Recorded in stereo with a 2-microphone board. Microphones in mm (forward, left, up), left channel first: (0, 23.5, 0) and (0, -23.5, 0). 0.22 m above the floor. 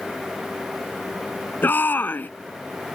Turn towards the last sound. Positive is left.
turn(degrees=40)  # may be behind; listen again after turning